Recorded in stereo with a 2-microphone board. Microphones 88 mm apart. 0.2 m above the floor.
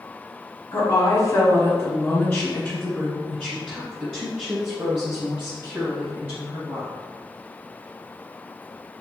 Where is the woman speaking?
40° left (ahead or behind), 1.5 m; by 6.9 s 25° right (ahead or behind), 3.5 m.